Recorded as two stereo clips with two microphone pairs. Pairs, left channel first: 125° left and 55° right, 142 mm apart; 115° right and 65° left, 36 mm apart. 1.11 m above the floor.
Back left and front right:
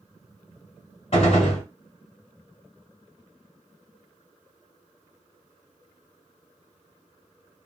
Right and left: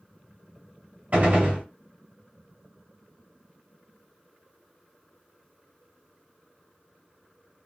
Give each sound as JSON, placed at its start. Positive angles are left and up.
{"t": 1.1, "sound": "a gunshot", "azimuth_deg": 95, "distance_m": 1.7}